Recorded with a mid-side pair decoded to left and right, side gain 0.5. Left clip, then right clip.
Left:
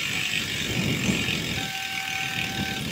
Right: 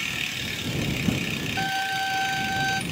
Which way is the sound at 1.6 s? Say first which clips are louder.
Right 4 dB; 60° right.